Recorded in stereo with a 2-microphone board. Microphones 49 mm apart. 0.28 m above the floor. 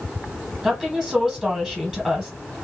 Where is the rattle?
I don't hear a rattle.